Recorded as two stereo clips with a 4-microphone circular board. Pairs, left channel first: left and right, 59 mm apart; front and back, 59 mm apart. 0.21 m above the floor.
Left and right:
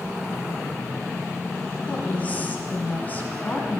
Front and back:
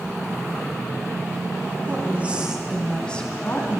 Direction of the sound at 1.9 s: 145° left.